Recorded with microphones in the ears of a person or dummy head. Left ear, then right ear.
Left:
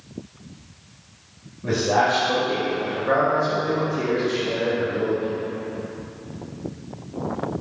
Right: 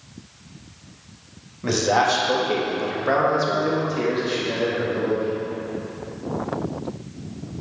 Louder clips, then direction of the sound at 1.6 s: Right 1 dB; 65° right (ahead or behind).